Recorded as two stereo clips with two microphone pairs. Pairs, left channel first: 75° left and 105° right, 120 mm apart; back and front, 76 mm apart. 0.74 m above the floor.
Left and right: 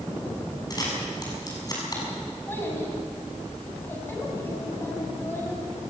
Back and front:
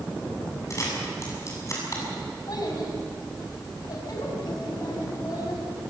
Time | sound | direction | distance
0.7 | a camera shutter | 130° left | 6.5 m
2.5 | a child speaking | 145° left | 4.5 m